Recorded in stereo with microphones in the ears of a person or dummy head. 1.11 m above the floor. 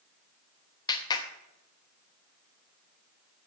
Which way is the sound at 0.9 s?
25° left (ahead or behind).